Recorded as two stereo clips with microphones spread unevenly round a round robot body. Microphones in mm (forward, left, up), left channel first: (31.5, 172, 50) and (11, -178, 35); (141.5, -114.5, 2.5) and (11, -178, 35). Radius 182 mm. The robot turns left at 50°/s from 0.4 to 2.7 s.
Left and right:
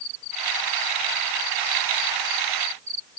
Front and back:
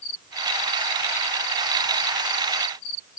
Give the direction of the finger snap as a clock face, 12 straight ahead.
No finger snap in this recording.